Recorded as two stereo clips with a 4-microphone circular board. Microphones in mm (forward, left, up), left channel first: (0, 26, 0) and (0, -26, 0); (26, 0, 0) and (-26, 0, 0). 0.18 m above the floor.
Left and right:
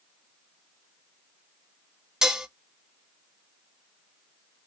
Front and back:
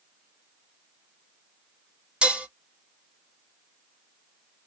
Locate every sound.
2.2 s dishes clattering: 150° right, 0.8 m